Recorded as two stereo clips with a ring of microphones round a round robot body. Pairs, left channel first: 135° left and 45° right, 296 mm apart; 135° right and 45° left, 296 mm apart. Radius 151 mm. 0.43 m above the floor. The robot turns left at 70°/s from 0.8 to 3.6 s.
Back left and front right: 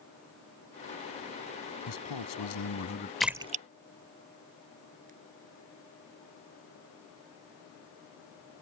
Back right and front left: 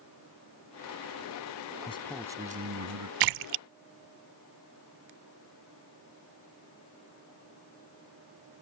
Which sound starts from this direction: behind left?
A man speaking, at 1.9 s.